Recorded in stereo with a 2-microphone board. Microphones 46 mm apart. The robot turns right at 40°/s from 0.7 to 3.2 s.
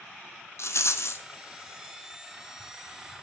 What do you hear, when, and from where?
0.6 s a rattle: 75° left (ahead or behind), 0.6 m; by 1.2 s 70° left (ahead or behind), 0.6 m